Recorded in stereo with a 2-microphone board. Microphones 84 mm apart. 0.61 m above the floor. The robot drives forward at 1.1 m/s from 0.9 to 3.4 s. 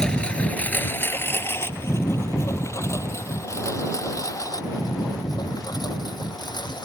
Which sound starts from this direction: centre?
A lawn mower, at 0.0 s.